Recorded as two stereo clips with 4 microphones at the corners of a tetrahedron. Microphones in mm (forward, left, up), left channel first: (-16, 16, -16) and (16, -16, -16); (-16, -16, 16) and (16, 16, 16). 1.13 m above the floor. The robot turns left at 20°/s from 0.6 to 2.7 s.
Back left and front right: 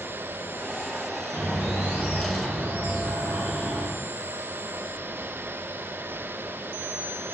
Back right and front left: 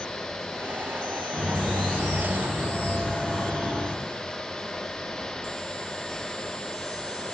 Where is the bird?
25° right, 1.6 m; by 3.9 s 50° right, 1.6 m.